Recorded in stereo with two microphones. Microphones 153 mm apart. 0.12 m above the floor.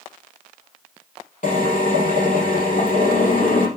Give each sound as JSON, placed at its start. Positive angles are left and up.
{"t": 1.4, "sound": "a drill", "side_deg": 60, "distance_m": 4.0}